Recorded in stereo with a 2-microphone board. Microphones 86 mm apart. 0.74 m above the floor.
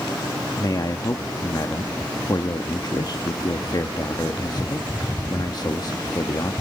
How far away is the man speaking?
About 0.7 m.